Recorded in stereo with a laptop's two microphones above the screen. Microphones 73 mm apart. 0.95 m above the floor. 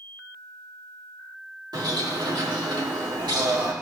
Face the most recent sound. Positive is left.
turn(degrees=-75)  # may be behind; listen again after turning